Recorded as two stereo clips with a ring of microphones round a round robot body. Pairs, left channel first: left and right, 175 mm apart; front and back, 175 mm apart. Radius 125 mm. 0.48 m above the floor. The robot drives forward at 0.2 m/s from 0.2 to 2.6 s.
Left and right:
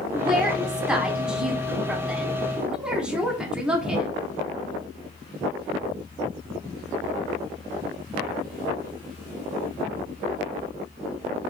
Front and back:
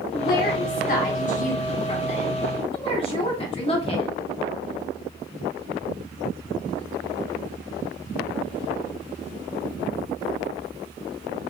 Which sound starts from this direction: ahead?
A woman speaking, at 0.1 s.